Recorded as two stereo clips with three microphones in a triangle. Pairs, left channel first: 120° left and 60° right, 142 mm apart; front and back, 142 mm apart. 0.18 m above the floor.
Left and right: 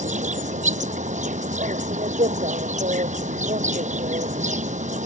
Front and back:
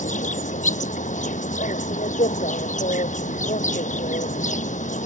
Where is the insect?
30° right.